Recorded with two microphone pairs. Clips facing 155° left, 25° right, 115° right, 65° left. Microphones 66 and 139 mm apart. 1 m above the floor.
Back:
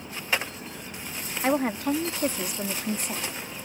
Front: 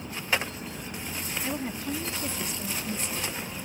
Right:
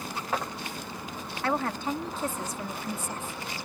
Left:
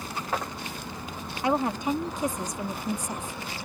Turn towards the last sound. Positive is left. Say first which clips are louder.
# back 10 dB, left 4 dB
turn(degrees=135)